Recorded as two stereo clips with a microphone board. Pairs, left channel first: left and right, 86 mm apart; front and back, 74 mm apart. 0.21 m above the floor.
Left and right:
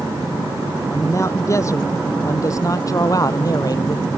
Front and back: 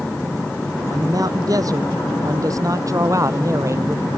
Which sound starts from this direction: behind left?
A man speaking, at 0.9 s.